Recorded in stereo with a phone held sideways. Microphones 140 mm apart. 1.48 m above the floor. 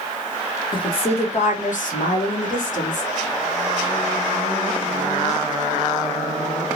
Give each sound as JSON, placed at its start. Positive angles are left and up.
{"t": 0.7, "sound": "a woman speaking", "side_deg": 35, "distance_m": 0.9}